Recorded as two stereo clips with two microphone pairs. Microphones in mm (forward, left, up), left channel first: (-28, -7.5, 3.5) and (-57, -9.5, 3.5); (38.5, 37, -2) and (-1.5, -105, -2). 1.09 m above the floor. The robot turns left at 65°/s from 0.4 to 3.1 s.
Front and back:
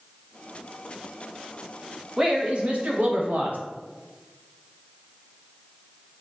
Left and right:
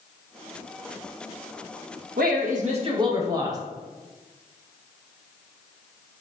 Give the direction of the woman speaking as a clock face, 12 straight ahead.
4 o'clock.